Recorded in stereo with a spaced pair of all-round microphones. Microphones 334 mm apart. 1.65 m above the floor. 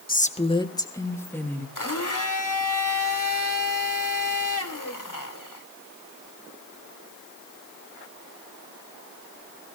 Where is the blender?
65° left (ahead or behind), 2.5 m.